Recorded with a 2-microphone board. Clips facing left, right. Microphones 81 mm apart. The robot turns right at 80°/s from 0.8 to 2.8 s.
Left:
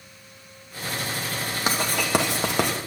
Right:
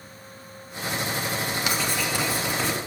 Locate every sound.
1.7 s writing: 35° left (ahead or behind), 1.2 m; by 2.8 s 55° left (ahead or behind), 1.2 m